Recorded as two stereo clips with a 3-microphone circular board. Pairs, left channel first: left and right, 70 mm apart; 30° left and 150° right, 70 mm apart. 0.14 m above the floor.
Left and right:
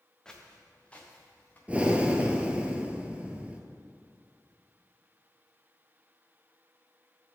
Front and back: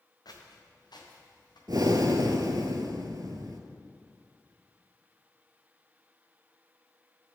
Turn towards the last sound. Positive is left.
turn(degrees=-160)